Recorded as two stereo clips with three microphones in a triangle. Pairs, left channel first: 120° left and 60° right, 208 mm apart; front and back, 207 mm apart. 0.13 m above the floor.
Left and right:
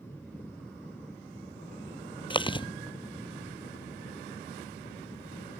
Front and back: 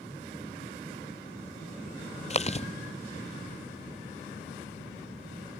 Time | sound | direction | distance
2.3 | chewing | 55° left | ?